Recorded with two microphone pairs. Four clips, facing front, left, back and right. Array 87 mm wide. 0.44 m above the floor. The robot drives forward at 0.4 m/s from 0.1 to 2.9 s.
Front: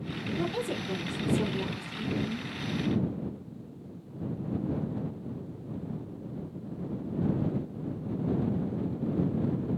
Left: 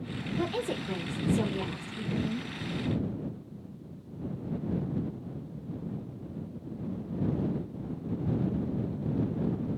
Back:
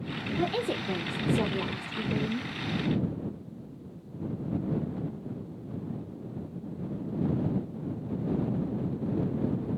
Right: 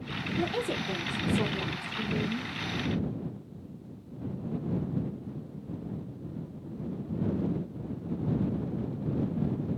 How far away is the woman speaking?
About 0.7 m.